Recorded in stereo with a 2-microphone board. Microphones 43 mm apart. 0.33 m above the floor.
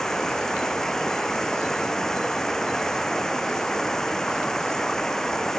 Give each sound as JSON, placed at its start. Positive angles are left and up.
{"t": 0.0, "sound": "running water", "side_deg": 10}